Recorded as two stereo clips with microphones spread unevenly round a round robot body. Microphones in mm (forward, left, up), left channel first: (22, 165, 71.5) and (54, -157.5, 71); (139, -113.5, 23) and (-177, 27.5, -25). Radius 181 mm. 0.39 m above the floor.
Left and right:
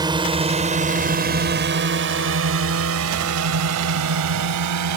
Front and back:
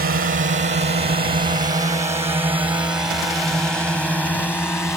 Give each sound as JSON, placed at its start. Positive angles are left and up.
{"t": 0.0, "sound": "a drone", "azimuth_deg": -160}